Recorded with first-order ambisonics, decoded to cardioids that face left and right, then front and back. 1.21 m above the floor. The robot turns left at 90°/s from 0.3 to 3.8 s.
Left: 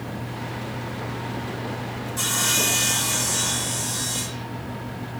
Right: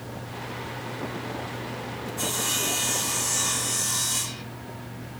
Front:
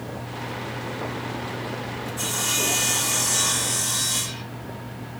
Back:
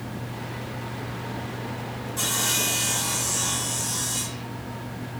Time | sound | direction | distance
2.2 | sawing | 130° left | 1.4 m